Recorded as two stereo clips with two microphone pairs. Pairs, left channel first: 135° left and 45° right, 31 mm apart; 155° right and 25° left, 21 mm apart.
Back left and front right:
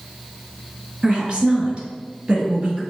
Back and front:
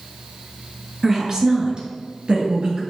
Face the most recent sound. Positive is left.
turn(degrees=0)